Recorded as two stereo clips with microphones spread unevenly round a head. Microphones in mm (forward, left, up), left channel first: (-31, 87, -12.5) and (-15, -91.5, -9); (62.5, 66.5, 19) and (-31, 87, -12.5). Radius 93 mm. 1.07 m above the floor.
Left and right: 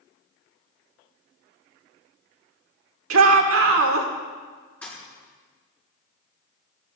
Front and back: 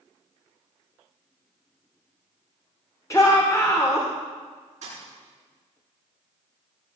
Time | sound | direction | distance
3.1 | a shout | 90° right | 2.5 m
4.8 | a thud | 175° left | 7 m